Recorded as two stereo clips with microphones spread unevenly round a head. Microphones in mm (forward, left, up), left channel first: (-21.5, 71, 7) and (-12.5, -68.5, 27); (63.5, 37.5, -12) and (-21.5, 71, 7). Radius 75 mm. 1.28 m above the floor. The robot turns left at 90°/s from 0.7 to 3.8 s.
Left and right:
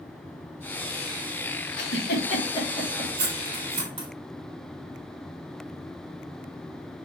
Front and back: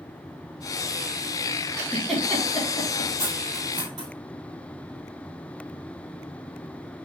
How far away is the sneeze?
I don't hear a sneeze.